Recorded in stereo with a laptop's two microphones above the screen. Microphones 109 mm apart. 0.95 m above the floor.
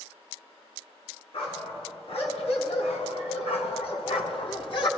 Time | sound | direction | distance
1.3 | a dog barking | 60° left (ahead or behind) | 2.5 m